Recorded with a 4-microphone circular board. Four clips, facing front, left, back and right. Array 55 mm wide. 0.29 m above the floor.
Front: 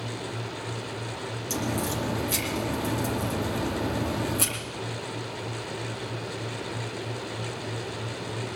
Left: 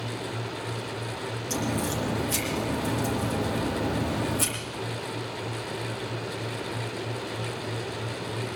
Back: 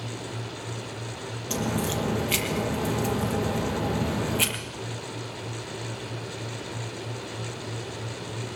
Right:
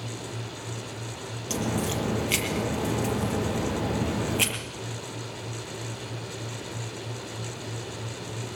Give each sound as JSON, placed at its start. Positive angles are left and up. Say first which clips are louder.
{"t": 1.5, "sound": "a crack", "louder": "right 1 dB, back 2 dB", "azimuth_deg": -125, "distance_m": 5.0}